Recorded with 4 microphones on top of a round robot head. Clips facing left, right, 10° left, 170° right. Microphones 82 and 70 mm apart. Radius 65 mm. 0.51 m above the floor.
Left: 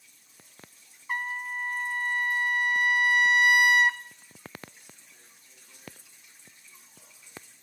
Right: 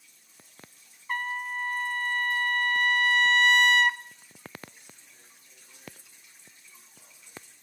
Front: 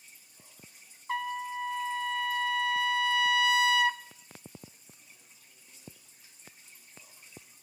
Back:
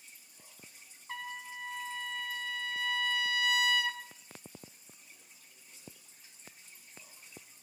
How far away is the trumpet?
About 0.8 m.